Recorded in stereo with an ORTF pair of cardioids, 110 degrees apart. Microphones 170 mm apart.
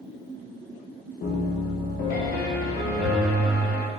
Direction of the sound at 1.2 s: 65° left.